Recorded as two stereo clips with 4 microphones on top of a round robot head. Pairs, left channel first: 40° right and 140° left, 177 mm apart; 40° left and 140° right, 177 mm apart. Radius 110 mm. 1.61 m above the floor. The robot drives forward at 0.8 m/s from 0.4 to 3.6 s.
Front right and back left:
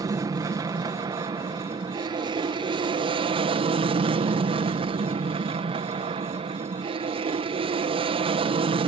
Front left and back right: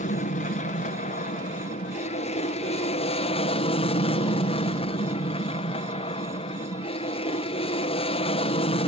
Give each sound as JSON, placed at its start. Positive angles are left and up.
{"t": 0.0, "sound": "an aircraft", "azimuth_deg": 75}